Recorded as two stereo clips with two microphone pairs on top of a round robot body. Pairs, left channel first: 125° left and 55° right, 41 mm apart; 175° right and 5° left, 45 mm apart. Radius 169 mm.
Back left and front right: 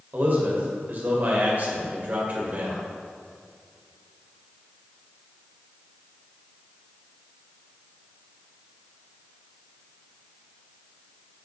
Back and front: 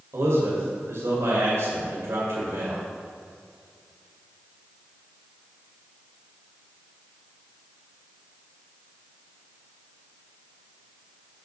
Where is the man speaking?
5° right, 1.9 m.